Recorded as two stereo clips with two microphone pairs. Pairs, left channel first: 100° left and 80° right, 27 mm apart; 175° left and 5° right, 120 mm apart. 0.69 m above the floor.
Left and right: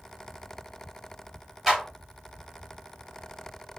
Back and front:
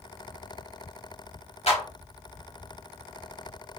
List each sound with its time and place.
1.7 s a clap: 155° right, 3 m